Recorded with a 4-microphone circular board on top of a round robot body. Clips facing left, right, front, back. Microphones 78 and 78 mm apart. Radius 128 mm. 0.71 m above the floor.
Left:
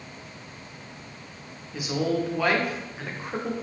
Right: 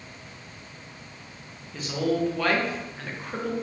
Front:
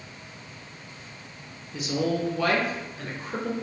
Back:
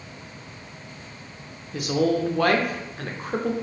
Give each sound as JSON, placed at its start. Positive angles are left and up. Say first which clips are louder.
{"t": 1.7, "sound": "a woman speaking", "louder": "even, back 4 dB", "azimuth_deg": 165, "distance_m": 0.6}